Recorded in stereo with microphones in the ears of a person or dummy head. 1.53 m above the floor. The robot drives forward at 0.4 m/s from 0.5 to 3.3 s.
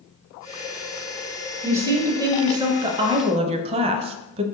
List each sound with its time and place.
1.6 s a woman speaking: 10° right (ahead or behind), 1.1 m; by 4.4 s 30° right (ahead or behind), 0.5 m